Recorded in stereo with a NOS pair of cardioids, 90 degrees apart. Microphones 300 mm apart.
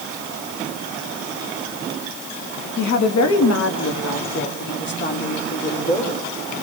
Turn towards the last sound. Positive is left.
turn(degrees=30)